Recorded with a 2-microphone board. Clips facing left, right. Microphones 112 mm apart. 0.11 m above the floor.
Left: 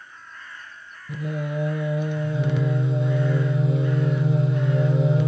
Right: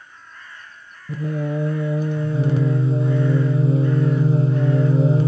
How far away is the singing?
About 0.5 m.